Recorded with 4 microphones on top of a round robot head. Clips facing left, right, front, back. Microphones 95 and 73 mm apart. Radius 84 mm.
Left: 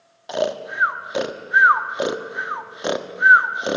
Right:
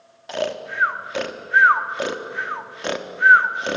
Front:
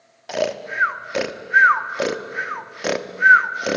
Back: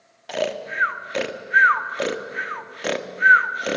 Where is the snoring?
70° left, 1.2 m.